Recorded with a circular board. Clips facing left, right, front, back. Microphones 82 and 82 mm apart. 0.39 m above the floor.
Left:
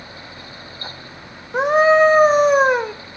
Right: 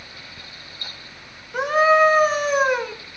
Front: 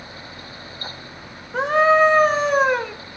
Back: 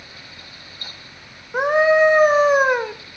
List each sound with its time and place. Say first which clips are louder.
1.5 s a scream: left 3 dB, even; 120° left, 1.2 m